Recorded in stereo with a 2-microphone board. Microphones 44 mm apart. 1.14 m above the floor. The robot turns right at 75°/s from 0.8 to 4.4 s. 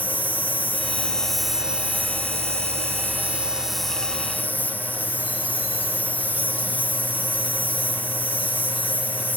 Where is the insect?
135° left, 1.1 m; by 9.4 s 45° left, 1.1 m.